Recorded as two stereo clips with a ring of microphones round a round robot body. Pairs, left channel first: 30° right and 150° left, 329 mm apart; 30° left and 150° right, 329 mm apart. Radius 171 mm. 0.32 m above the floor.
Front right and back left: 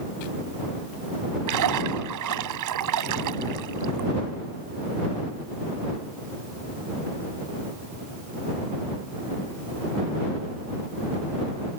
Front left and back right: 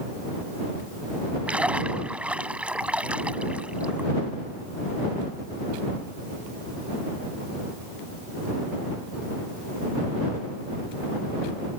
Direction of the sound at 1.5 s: 125° left.